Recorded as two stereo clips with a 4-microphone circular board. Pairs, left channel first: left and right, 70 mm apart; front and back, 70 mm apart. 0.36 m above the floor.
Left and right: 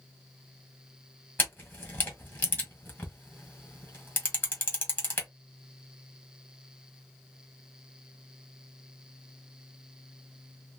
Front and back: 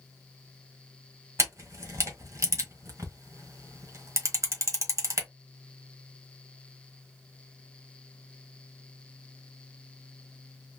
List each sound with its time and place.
1.4 s a camera shutter: 145° left, 1.3 m